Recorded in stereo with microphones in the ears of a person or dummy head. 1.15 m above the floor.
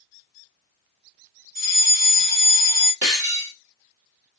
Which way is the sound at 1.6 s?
45° right (ahead or behind).